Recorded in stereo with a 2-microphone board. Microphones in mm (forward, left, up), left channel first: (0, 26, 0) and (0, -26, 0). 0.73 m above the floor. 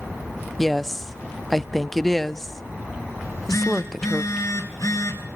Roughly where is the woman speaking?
Centre.